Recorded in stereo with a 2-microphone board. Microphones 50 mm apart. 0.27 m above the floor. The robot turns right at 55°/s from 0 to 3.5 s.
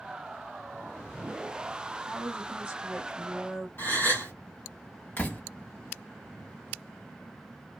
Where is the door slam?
30° left (ahead or behind), 1.0 m.